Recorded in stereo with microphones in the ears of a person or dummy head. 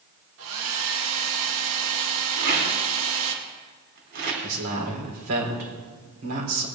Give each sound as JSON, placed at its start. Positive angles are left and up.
{"t": 0.4, "sound": "a hair dryer", "side_deg": -70, "distance_m": 2.0}
{"t": 2.4, "sound": "a rattle", "side_deg": -55, "distance_m": 3.5}
{"t": 4.4, "sound": "a man speaking", "side_deg": -85, "distance_m": 4.5}